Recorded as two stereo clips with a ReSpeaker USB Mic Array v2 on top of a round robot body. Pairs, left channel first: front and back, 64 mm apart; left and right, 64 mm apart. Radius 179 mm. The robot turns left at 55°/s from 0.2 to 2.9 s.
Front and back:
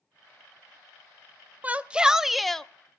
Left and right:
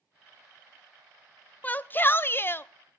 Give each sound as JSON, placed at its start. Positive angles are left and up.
{"t": 1.6, "sound": "a shout", "azimuth_deg": 130, "distance_m": 0.8}